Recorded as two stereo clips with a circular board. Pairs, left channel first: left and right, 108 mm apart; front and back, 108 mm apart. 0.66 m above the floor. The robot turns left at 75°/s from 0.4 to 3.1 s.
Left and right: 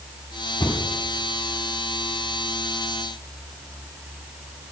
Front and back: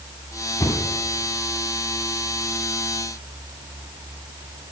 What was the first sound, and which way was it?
A cupboard door, 55° left.